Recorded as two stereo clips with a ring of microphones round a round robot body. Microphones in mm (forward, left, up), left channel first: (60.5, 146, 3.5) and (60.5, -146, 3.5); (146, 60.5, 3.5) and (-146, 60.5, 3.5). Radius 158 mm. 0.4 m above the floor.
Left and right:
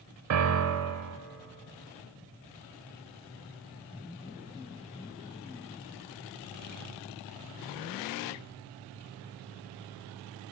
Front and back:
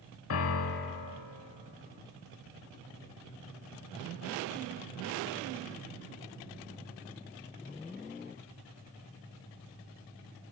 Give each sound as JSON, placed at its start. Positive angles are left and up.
{"t": 0.3, "sound": "a piano", "azimuth_deg": -50, "distance_m": 0.7}